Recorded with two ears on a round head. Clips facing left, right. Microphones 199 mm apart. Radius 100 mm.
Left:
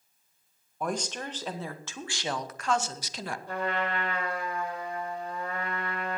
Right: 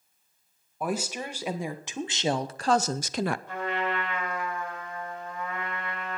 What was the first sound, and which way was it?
A woman speaking, 5° right (ahead or behind).